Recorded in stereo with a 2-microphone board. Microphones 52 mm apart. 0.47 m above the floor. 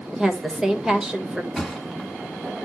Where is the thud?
Centre (ahead or behind), 1.6 m.